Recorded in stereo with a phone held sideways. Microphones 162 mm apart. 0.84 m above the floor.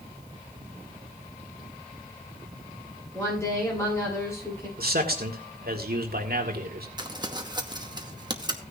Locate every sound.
3.1 s a woman speaking: 15° left (ahead or behind), 8 m
4.8 s a man speaking: 70° right (ahead or behind), 1.9 m
7.0 s crumpling: 25° right (ahead or behind), 0.9 m